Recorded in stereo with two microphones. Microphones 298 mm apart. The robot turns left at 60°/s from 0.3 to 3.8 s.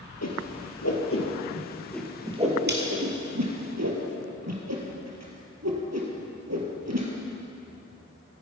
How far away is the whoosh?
About 3 m.